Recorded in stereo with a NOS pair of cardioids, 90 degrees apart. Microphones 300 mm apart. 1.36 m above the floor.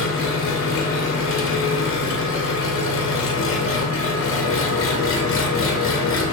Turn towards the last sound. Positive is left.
turn(degrees=45)